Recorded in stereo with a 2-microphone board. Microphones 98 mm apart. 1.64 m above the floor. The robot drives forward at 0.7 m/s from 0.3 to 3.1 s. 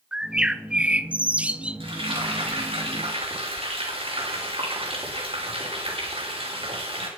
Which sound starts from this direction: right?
Frying, at 1.8 s.